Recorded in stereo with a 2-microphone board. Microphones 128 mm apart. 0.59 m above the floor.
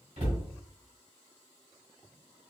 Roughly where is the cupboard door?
Right.